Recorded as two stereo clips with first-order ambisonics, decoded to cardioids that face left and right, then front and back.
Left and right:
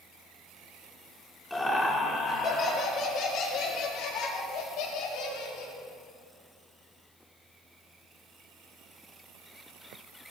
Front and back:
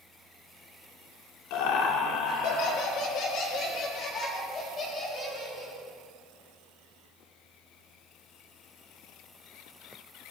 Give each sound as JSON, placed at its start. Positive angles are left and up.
{"t": 1.5, "sound": "laughter", "azimuth_deg": 5, "distance_m": 2.0}